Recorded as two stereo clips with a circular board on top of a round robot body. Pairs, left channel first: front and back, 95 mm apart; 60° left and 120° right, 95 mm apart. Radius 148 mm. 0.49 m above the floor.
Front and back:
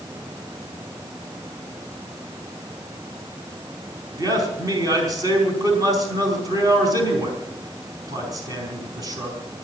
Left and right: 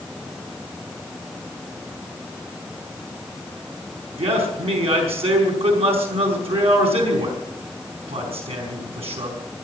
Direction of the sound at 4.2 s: 130° right.